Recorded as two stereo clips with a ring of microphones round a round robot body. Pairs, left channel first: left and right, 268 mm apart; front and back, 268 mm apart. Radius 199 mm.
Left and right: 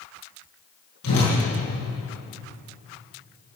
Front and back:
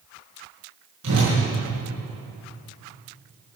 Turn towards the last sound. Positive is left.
turn(degrees=130)